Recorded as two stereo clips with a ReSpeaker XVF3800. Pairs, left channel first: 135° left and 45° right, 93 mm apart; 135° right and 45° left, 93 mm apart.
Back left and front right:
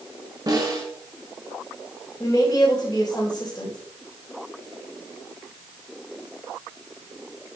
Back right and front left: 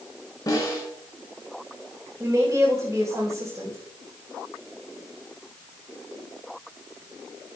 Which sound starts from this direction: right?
A snare drum, at 0.5 s.